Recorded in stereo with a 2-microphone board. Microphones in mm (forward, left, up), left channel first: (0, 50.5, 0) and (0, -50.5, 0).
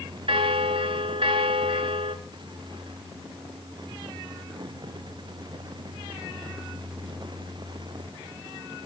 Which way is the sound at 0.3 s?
60° right (ahead or behind).